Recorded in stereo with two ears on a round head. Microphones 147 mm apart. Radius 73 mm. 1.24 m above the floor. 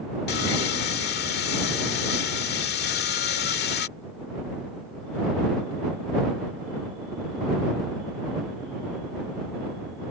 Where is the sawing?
70° left (ahead or behind).